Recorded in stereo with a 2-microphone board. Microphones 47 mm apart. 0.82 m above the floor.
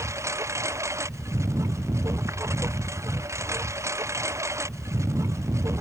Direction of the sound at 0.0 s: 85° right.